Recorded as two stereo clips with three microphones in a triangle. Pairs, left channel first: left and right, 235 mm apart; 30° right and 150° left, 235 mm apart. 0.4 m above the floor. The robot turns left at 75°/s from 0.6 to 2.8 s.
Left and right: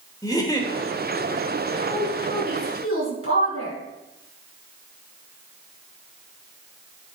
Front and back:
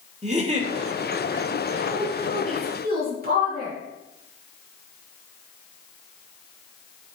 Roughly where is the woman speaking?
Behind.